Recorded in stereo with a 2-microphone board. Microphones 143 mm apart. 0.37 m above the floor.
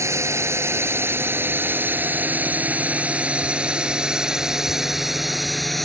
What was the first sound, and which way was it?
A drone, 20° right (ahead or behind).